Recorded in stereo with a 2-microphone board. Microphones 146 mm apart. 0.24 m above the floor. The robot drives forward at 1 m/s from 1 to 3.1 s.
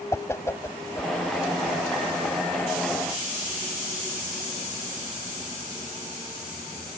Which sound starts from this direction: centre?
A whoosh, at 0.1 s.